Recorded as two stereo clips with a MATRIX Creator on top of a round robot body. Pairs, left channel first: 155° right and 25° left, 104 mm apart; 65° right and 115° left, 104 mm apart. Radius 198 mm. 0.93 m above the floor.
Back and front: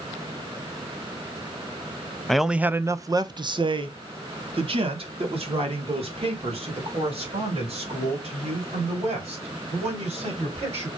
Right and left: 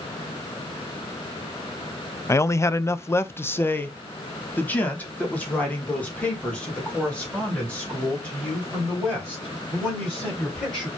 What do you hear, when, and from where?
2.3 s a man speaking: 75° right, 0.7 m; by 10.9 s 10° left, 4.5 m